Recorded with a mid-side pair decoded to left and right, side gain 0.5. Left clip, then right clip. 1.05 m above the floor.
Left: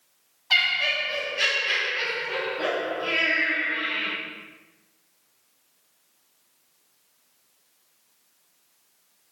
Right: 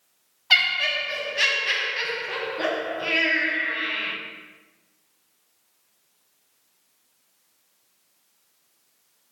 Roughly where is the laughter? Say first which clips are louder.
Right 2 dB; ahead right.